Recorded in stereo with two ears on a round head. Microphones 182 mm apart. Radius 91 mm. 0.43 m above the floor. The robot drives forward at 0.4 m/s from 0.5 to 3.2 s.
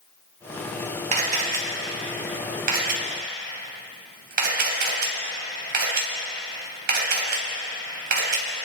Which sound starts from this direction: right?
A camera shutter, at 1.1 s.